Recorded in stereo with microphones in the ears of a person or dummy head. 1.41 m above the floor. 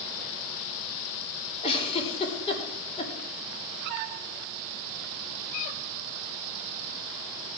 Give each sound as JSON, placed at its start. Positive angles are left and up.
{"t": 1.6, "sound": "a giggle", "side_deg": 30, "distance_m": 3.5}